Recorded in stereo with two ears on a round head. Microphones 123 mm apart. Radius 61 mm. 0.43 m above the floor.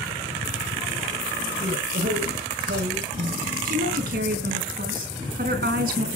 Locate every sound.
1.6 s a man speaking: 85° right, 6 m
3.6 s a woman speaking: 70° right (ahead or behind), 4 m